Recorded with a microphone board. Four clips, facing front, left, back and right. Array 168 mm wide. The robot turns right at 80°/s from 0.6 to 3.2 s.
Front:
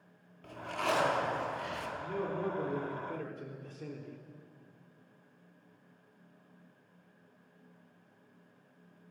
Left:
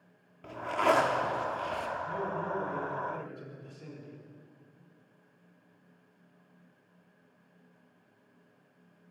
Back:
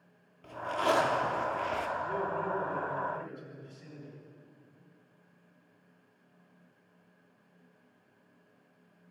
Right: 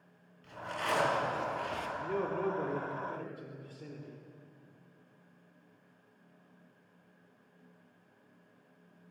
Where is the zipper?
90° left, 2.5 m; by 1.9 s 165° right, 2.5 m.